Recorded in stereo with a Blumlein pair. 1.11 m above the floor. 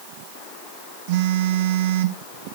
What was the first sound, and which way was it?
A phone buzzing, 50° right.